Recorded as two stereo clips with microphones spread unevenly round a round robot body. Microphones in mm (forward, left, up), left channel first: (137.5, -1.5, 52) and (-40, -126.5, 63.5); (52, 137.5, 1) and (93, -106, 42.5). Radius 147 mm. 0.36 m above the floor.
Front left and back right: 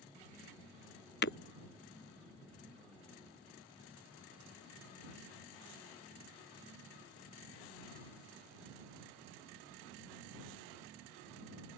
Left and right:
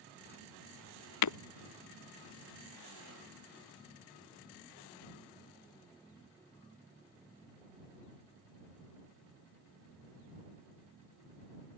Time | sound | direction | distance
1.2 | breaking glass | 90° left | ?